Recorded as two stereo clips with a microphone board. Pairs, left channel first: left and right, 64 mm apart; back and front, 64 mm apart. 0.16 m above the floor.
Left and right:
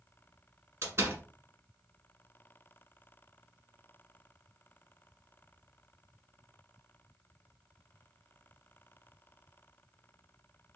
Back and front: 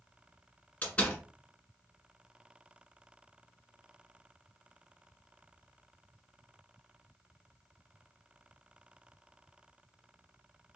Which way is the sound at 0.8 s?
115° right.